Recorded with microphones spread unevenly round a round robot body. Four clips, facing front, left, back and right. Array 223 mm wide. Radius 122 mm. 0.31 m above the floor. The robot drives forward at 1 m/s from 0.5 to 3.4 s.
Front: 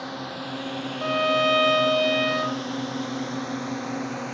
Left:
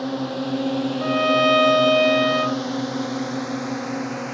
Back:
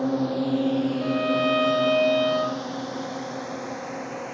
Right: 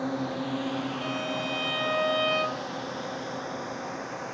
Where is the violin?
40° left; by 2.8 s 160° left.